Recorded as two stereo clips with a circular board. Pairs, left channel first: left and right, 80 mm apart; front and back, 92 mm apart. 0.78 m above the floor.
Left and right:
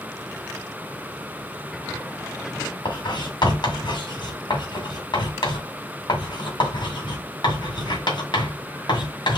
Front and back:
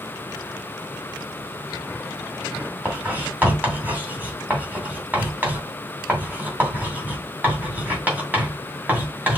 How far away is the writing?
About 2 m.